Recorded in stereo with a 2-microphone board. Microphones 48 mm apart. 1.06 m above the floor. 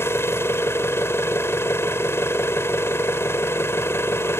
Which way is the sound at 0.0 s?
80° left.